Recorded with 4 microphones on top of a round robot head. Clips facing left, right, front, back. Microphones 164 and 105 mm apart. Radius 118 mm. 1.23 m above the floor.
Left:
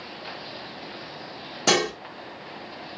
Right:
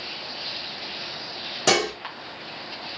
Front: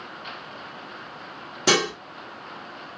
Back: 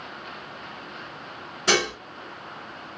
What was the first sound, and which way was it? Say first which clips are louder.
Dishes clattering: right 1 dB, front 2 dB; 5° left.